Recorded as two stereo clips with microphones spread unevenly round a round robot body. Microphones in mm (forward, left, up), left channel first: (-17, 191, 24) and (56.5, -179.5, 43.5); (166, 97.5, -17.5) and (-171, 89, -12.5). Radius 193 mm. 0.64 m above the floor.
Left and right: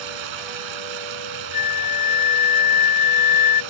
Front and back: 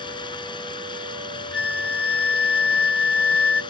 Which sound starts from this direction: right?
Running water, at 0.0 s.